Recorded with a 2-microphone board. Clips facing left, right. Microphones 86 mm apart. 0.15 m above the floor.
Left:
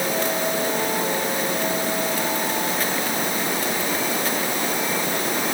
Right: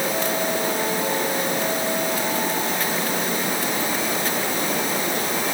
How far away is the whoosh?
No whoosh in this recording.